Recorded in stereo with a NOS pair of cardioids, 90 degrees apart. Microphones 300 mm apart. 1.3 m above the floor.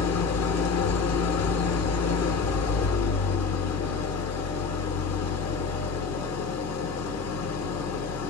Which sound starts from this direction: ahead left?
An engine running, at 0.0 s.